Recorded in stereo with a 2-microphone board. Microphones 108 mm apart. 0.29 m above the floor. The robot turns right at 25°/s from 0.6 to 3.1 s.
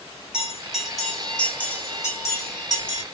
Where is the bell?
5° right (ahead or behind), 2.5 m; by 3.0 s 45° left (ahead or behind), 2.5 m.